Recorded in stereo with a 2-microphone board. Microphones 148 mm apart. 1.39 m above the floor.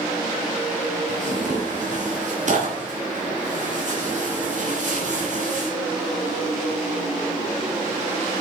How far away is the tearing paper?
About 3 m.